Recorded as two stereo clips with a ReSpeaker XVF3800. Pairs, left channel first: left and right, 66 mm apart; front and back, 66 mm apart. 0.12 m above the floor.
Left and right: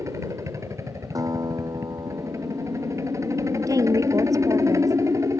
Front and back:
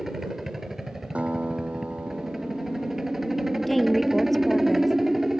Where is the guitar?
110° right.